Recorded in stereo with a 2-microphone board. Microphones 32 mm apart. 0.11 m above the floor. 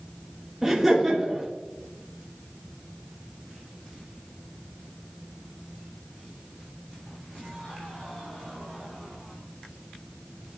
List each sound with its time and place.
0.6 s laughter: 10° right (ahead or behind), 1.6 m